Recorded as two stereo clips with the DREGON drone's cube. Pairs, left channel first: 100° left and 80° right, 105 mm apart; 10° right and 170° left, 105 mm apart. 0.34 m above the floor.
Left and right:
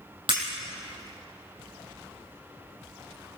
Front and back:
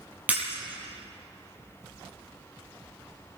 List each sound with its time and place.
0.3 s breaking glass: 115° right, 6 m